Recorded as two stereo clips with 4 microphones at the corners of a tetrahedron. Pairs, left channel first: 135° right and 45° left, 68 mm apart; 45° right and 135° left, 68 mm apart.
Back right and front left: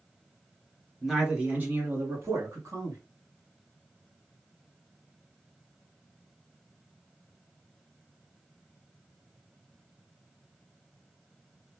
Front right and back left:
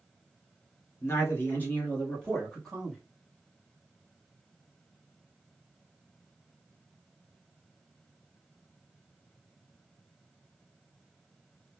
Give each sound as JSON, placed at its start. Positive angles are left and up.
{"t": 1.0, "sound": "a man speaking", "azimuth_deg": -35, "distance_m": 1.6}